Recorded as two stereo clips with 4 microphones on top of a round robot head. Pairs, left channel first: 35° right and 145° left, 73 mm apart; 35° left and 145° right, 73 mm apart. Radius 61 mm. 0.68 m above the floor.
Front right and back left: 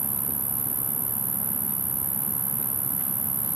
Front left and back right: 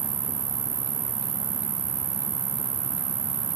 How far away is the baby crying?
No baby crying in this recording.